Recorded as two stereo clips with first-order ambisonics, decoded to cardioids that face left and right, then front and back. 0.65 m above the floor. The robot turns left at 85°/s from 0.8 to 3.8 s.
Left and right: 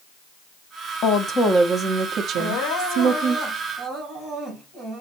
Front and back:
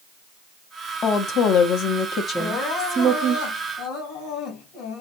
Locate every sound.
1.0 s a woman speaking: 55° left, 0.9 m; by 3.4 s 145° right, 0.9 m
2.4 s crying: 85° left, 3 m; by 5.0 s 40° right, 3 m